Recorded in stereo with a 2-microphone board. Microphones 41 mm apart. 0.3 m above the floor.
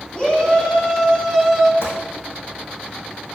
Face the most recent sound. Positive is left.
turn(degrees=80)